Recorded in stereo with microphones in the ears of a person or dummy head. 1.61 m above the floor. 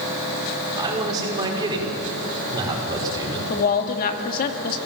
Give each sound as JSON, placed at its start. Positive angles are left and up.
{"t": 0.8, "sound": "a man speaking", "side_deg": -30, "distance_m": 6.5}
{"t": 3.5, "sound": "a woman speaking", "side_deg": 45, "distance_m": 2.5}